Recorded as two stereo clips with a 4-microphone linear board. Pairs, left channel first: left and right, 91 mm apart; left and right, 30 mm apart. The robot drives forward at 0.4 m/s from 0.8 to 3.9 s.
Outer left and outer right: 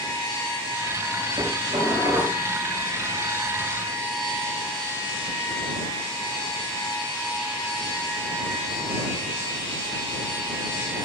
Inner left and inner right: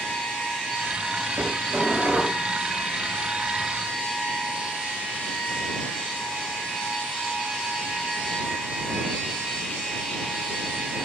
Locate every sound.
1.4 s dishes clattering: 55° right (ahead or behind), 8.5 m